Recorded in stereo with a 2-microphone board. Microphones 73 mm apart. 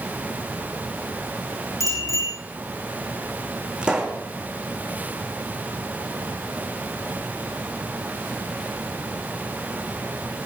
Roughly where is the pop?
Centre.